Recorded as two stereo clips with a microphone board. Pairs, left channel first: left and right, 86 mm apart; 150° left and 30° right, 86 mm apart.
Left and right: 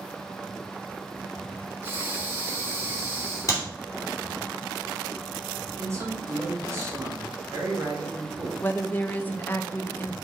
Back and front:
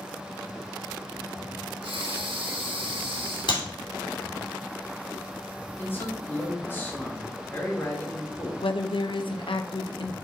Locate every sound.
1.8 s breathing: 30° right, 1.6 m
3.5 s a clap: 140° left, 3 m
5.8 s a man speaking: 145° right, 2.0 m
8.6 s a woman speaking: 155° left, 0.9 m